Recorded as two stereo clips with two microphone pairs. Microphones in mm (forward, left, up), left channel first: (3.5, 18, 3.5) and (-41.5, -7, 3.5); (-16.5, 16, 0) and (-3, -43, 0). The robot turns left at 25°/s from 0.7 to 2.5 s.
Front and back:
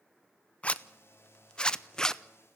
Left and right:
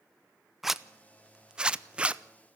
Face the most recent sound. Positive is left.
turn(degrees=-45)